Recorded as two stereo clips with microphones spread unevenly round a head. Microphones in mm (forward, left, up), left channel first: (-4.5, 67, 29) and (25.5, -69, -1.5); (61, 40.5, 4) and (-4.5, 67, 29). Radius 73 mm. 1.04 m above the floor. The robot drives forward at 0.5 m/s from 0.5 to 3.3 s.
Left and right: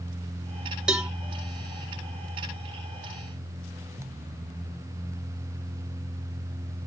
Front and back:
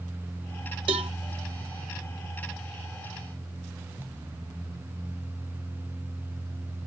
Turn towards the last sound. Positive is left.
turn(degrees=-165)